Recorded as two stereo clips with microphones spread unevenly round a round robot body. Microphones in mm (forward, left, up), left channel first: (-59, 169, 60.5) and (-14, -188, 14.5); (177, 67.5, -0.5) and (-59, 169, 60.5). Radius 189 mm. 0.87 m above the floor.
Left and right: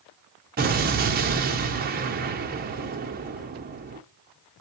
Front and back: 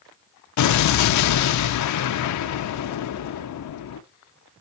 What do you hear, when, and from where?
0.6 s an explosion: 15° right, 0.6 m